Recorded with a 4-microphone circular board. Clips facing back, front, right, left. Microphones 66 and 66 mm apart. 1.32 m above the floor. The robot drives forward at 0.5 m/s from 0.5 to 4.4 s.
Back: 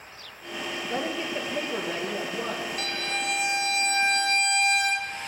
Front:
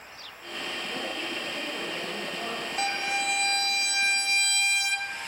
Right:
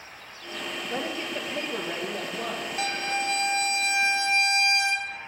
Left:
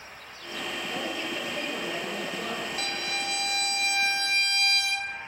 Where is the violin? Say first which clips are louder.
Front 2 dB, right 4 dB; 45° right, 0.5 m; by 5.1 s 155° right, 0.7 m.